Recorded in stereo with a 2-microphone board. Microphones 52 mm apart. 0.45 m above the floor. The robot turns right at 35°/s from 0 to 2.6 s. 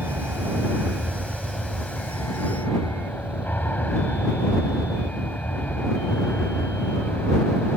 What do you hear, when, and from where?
0.0 s an aircraft: 50° right; by 7.8 s 40° left